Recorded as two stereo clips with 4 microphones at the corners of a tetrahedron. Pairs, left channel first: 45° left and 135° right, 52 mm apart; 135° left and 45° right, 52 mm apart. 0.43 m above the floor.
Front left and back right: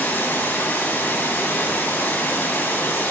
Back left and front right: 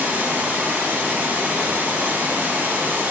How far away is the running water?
About 1.4 m.